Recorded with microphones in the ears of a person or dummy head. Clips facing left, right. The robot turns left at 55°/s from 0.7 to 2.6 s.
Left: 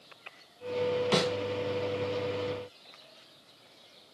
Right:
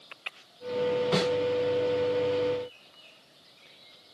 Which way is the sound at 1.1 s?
55° left (ahead or behind).